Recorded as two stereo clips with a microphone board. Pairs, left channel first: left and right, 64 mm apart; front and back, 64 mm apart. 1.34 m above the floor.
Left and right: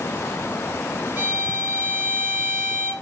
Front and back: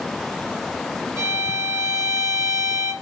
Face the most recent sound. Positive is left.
turn(degrees=-155)